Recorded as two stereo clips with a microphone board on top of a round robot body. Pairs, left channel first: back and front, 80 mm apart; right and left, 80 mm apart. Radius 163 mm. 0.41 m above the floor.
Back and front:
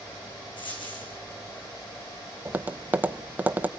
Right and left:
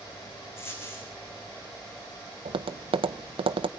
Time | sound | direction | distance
0.6 | a dropped coin | 155° right | 7 m
2.5 | tapping | 70° left | 0.6 m